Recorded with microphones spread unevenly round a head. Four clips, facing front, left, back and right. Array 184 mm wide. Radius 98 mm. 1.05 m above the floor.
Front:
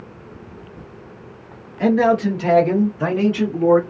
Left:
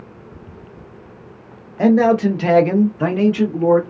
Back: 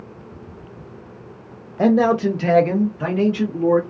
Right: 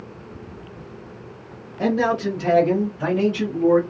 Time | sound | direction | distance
1.8 | a man speaking | 150° left | 0.8 m